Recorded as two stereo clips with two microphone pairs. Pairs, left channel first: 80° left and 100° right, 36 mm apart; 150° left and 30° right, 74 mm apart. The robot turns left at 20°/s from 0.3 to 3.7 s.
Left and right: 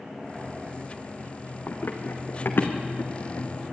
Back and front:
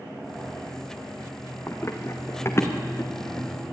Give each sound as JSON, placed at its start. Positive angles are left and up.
{"t": 1.7, "sound": "running footsteps", "azimuth_deg": 95, "distance_m": 2.0}